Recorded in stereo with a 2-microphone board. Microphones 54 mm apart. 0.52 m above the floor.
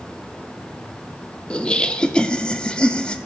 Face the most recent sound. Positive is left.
turn(degrees=15)  # may be behind; listen again after turning